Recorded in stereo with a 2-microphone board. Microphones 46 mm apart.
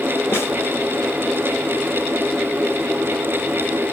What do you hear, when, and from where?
0.3 s a snare drum: 70° left (ahead or behind), 1.9 m